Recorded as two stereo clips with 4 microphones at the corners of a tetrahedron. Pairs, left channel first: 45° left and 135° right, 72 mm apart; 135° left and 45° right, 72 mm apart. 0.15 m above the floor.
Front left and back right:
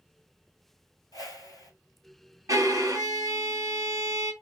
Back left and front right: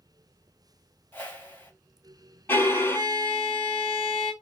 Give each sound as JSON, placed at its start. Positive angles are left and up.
{"t": 1.1, "sound": "a whoosh", "azimuth_deg": 75, "distance_m": 1.1}
{"t": 2.5, "sound": "a violin", "azimuth_deg": -170, "distance_m": 1.0}